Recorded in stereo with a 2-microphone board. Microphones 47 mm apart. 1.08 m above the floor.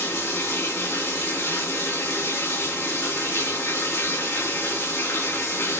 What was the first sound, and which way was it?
Running water, 70° left (ahead or behind).